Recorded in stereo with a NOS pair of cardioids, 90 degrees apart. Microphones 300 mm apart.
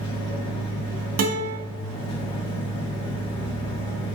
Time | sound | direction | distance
0.0 | a machine running | 25° left | 3 m
1.2 | a guitar | 55° right | 1.8 m